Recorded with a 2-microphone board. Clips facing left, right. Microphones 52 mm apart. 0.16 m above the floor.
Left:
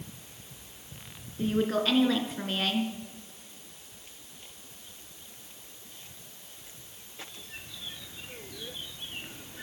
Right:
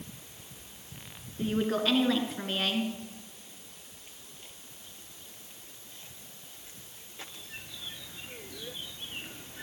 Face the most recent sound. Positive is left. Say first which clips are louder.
# left 1 dB
turn(degrees=0)  # may be behind; listen again after turning